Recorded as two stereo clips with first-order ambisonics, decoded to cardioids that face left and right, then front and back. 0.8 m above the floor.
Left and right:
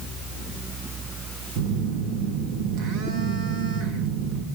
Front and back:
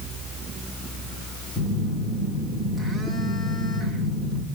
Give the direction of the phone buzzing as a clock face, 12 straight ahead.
3 o'clock.